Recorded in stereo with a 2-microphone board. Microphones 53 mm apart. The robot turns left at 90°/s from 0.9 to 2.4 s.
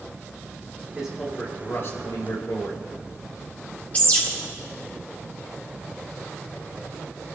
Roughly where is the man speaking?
Behind.